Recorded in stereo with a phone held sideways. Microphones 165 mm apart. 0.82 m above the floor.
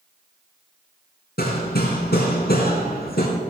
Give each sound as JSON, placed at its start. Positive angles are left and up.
{"t": 1.4, "sound": "hammering", "side_deg": 80, "distance_m": 3.5}